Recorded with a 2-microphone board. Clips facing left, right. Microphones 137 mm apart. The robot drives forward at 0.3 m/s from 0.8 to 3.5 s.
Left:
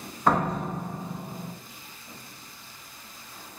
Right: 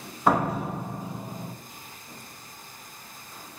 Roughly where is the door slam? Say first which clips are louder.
Right 1 dB; centre.